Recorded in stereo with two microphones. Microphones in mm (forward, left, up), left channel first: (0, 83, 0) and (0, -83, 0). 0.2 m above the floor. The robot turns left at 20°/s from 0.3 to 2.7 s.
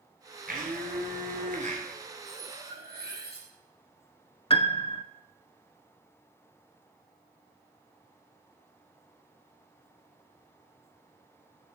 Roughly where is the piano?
Left.